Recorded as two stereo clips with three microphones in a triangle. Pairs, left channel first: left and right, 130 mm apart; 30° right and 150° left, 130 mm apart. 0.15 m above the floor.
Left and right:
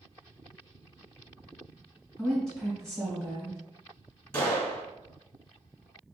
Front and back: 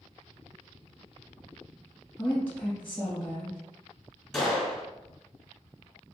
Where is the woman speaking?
25° left, 1.3 m.